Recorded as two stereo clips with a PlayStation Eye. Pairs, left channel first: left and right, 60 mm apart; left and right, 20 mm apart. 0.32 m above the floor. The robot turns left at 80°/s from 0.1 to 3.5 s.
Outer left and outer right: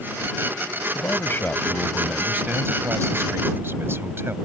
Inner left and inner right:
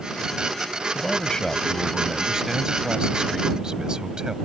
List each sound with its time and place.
0.9 s a man speaking: 80° left; by 4.3 s 125° right